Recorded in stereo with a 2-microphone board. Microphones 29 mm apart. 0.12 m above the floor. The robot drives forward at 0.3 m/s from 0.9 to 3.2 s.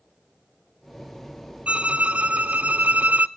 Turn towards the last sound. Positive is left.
turn(degrees=-65)  # may be behind; listen again after turning